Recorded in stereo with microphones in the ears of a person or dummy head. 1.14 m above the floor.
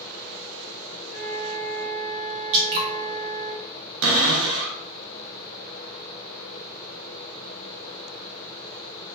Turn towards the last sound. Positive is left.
turn(degrees=-70)  # may be behind; listen again after turning